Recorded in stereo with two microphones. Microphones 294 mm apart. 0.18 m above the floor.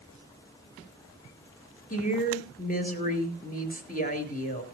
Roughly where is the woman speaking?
Left.